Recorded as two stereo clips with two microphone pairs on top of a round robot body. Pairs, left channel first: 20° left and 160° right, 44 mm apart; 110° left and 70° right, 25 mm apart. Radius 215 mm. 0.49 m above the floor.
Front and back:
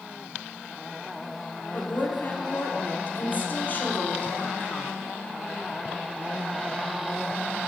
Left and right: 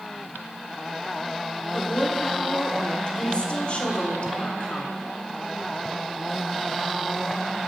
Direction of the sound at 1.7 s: 70° left.